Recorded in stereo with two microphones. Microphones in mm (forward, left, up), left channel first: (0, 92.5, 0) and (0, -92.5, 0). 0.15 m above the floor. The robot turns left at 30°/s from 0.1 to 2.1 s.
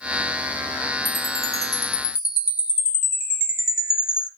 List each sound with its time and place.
1.1 s a chime: 150° left, 1.9 m; by 4.3 s 120° left, 1.9 m